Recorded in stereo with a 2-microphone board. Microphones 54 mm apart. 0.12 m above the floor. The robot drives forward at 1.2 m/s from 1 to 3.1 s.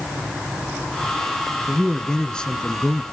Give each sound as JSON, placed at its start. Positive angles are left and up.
{"t": 1.7, "sound": "a man speaking", "side_deg": 10, "distance_m": 1.7}